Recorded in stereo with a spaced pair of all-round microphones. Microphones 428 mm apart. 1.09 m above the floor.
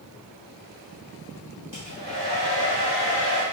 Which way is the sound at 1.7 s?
50° right (ahead or behind).